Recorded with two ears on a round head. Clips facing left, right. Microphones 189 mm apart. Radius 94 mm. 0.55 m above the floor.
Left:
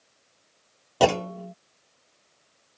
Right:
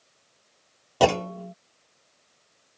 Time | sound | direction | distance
1.0 | a clunk | centre (ahead or behind) | ?